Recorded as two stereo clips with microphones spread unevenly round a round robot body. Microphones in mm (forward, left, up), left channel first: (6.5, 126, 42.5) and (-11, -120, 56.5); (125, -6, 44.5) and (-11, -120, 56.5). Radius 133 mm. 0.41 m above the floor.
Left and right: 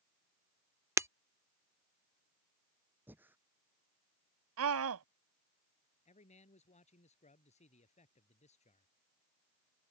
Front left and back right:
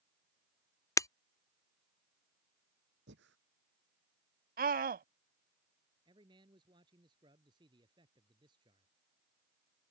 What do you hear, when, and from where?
1.0 s breaking glass: 20° right
3.1 s breathing: 175° right
4.6 s a scream: 115° right
6.0 s a man speaking: 150° left